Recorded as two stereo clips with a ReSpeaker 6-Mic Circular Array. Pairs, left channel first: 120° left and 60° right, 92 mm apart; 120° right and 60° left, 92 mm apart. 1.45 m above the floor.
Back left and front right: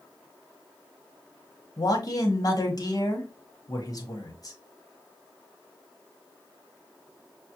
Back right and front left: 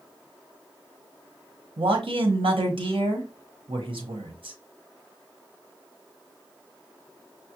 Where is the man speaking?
75° left, 1.1 m.